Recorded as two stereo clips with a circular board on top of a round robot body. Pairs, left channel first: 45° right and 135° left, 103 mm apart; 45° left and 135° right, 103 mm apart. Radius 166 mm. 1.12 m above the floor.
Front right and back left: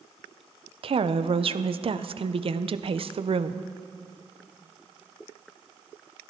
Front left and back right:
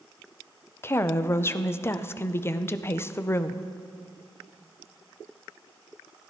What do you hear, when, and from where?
0.8 s a woman speaking: 110° left, 0.6 m